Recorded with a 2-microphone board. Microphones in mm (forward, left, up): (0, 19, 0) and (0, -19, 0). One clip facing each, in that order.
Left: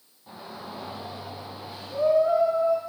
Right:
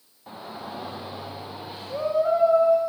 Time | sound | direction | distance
0.3 | a shout | 30° right (ahead or behind) | 9.5 m